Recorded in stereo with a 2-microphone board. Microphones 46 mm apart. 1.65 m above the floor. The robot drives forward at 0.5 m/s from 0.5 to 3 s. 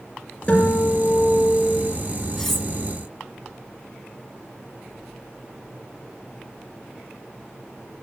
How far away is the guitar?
About 6 m.